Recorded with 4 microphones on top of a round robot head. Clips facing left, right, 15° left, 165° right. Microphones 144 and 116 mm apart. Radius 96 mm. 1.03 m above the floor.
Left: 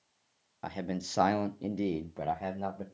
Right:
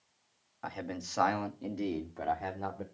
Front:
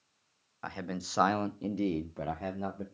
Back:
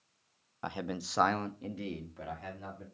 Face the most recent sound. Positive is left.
turn(degrees=20)